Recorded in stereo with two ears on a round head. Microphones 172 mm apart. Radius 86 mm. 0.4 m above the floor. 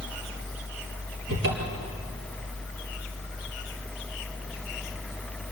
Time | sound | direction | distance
1.3 | a cupboard door | 65° right (ahead or behind) | 4 m